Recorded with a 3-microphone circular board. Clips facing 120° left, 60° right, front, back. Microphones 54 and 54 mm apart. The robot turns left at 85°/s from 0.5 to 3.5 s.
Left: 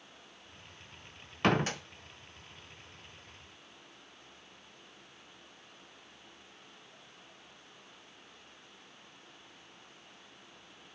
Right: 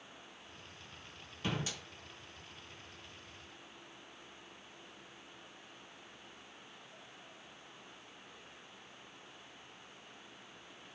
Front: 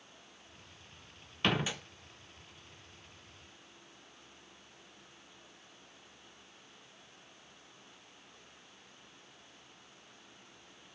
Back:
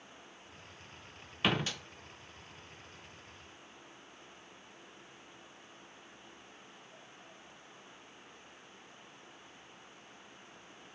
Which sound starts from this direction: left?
A door slam, at 1.4 s.